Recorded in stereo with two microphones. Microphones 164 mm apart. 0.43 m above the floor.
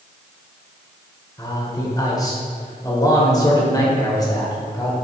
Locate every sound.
1.4 s a man speaking: 25° left (ahead or behind), 1.7 m